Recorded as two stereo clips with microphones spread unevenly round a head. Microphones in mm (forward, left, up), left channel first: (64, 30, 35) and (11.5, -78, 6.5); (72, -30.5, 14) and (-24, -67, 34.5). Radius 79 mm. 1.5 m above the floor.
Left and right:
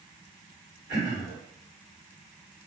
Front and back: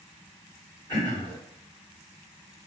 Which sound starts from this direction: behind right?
Throat clearing, at 0.9 s.